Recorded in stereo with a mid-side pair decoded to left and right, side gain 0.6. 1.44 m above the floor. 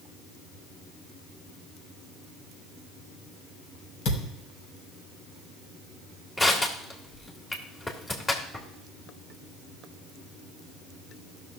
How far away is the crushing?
About 2 m.